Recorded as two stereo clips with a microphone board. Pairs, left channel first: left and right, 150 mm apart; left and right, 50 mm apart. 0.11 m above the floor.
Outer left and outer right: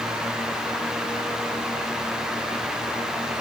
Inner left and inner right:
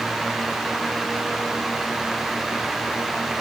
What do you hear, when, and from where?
Only background noise.